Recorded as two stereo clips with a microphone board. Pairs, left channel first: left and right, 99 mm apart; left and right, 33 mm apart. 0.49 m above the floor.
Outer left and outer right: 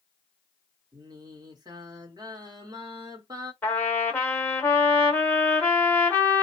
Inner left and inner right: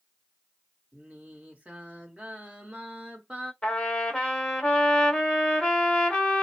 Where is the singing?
40° right (ahead or behind), 1.1 m.